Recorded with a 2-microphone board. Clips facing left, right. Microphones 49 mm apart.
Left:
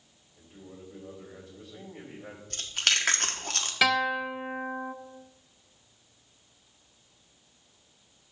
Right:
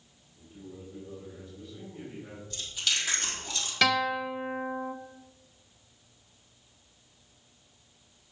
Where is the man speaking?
70° left (ahead or behind), 3.5 m.